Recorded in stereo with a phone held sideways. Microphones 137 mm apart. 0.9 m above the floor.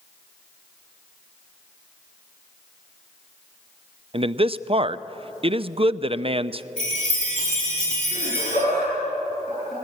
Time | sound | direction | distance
4.1 | a man speaking | 45° right (ahead or behind) | 0.5 m
6.8 | a chime | 45° left (ahead or behind) | 7.5 m
8.1 | laughter | 65° left (ahead or behind) | 9 m